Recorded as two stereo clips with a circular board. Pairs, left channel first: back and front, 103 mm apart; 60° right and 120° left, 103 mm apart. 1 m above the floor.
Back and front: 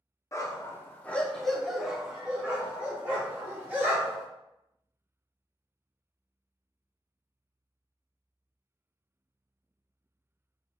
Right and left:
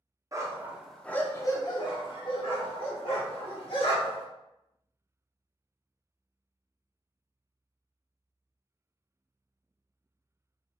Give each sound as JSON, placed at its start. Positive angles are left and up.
{"t": 0.3, "sound": "a dog barking", "azimuth_deg": 145, "distance_m": 0.6}